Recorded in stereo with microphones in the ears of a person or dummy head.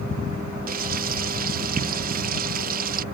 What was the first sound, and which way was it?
Frying, 50° right (ahead or behind).